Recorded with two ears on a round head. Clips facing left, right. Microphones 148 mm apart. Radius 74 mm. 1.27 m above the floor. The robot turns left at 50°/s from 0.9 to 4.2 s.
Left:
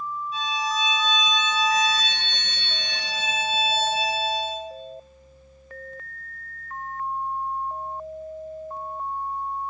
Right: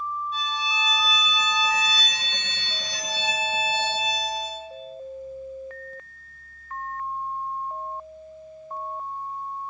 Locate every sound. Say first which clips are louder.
0.3 s a violin: left 3 dB; 5° left, 0.5 m; by 4.6 s 160° right, 0.5 m